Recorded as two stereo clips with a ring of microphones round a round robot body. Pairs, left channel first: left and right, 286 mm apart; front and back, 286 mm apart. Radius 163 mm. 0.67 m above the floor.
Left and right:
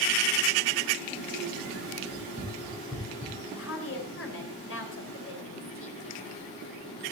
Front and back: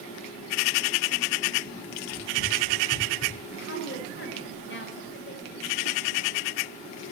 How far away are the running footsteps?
About 3 m.